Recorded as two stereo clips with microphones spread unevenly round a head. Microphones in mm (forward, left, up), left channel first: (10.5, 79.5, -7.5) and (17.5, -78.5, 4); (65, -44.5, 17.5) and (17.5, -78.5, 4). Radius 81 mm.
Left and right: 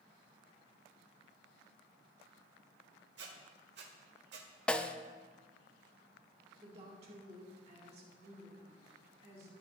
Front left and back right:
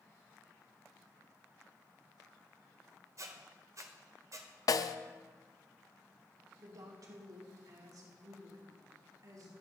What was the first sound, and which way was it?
A squeak, 110° right.